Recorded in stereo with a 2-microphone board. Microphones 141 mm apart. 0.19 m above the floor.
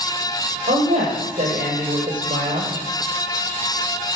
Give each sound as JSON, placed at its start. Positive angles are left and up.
{"t": 0.7, "sound": "a woman speaking", "side_deg": -65, "distance_m": 5.5}